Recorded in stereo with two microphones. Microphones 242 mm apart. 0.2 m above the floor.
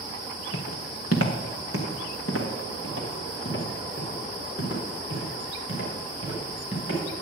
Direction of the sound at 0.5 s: 75° left (ahead or behind).